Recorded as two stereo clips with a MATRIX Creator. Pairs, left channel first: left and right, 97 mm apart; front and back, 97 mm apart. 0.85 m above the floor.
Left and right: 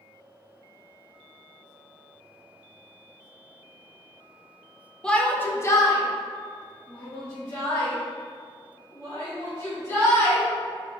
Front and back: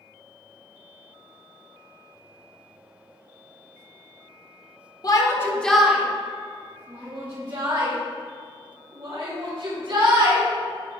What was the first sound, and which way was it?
A shout, 15° left.